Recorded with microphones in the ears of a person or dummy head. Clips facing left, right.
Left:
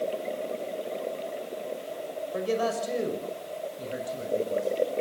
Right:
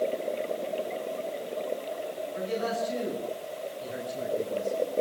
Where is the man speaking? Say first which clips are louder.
Left 3 dB; 70° left (ahead or behind), 5 m; by 4.7 s 45° left (ahead or behind), 6 m.